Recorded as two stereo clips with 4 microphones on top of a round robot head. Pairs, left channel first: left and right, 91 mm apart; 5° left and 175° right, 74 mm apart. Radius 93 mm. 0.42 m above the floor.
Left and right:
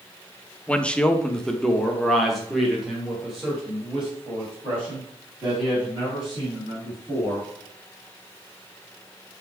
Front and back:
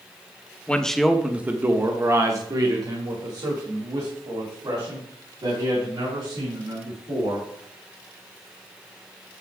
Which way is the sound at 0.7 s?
40° left.